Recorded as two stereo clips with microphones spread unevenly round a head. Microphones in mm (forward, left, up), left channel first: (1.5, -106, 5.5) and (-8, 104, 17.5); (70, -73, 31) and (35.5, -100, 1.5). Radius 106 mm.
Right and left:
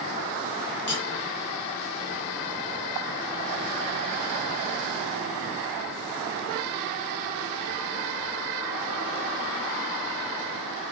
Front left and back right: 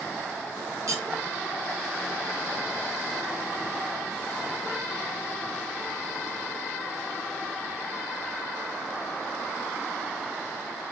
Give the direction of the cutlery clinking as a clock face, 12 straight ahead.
4 o'clock.